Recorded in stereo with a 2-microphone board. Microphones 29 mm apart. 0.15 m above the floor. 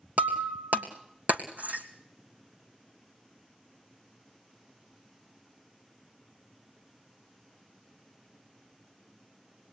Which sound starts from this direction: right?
Breaking glass, at 0.2 s.